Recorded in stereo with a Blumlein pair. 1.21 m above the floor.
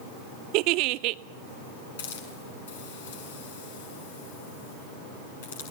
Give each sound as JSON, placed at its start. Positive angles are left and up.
{"t": 0.5, "sound": "a giggle", "azimuth_deg": -40, "distance_m": 0.6}
{"t": 2.0, "sound": "a hiss", "azimuth_deg": 60, "distance_m": 6.5}